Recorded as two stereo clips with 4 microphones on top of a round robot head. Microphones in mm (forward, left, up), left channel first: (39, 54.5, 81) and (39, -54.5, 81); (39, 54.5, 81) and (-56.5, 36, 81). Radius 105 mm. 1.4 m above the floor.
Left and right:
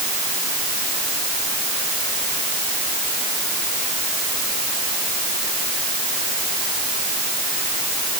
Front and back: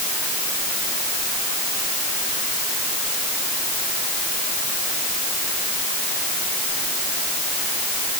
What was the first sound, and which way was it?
Only background noise.